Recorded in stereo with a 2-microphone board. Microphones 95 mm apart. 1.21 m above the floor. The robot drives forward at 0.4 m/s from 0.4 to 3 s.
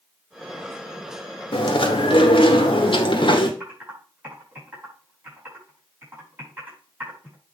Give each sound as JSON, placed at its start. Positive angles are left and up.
{"t": 1.5, "sound": "chewing", "side_deg": 65, "distance_m": 1.5}
{"t": 3.6, "sound": "typing on a keyboard", "side_deg": -20, "distance_m": 5.5}